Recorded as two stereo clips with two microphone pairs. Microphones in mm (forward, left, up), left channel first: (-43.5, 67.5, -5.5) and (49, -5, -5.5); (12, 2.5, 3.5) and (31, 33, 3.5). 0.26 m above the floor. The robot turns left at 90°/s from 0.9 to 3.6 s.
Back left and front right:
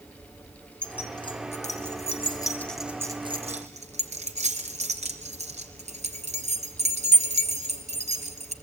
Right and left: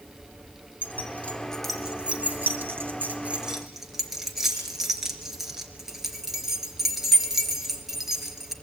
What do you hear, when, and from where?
0.8 s keys jangling: 140° right, 3 m; by 8.5 s 25° right, 3 m